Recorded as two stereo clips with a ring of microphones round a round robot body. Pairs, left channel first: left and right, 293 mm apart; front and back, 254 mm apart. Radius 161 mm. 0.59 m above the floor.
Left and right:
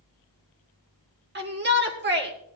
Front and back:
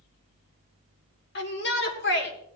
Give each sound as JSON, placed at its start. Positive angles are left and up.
{"t": 1.4, "sound": "a shout", "azimuth_deg": -40, "distance_m": 2.0}